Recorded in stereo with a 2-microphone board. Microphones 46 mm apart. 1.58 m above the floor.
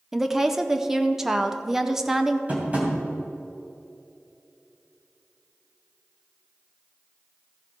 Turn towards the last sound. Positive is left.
turn(degrees=-30)  # may be behind; listen again after turning